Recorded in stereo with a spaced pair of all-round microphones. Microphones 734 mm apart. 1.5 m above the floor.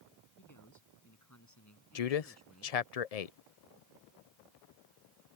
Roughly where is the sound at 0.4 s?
Left.